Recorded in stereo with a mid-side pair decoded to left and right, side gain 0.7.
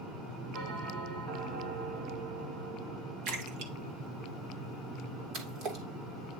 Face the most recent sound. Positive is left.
turn(degrees=-50)